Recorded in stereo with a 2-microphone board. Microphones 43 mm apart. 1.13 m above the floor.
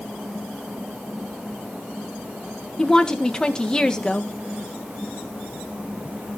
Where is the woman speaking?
20° left (ahead or behind), 1.3 m.